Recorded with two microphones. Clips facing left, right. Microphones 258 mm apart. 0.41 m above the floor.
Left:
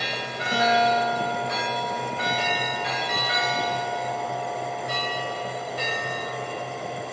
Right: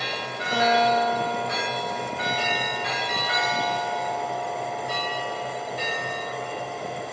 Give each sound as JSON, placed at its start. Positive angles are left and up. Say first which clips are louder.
{"t": 0.5, "sound": "a guitar", "louder": "right 1 dB", "side_deg": 25, "distance_m": 5.0}